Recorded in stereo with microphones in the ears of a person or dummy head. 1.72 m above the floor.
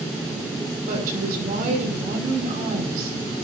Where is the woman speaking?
55° right (ahead or behind), 6 m.